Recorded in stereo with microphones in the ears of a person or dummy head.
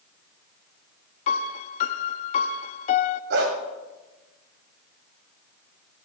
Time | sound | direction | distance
1.3 | a piano | 50° left (ahead or behind) | 0.6 m
3.3 | a dog barking | 70° right (ahead or behind) | 2 m